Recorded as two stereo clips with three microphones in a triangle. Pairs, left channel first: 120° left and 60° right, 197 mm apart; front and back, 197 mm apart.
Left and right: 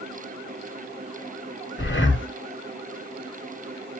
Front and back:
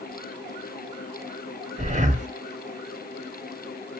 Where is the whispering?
No whispering in this recording.